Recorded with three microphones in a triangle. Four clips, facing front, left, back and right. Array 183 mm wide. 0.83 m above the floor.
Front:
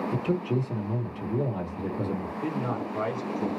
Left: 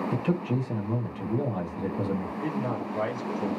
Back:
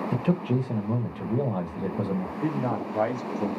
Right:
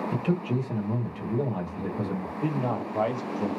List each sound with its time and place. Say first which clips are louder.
0.1 s a man speaking: right 2 dB, back 3 dB; straight behind, 1.4 m
2.4 s a man speaking: right 2 dB, back 3 dB; 135° right, 1.5 m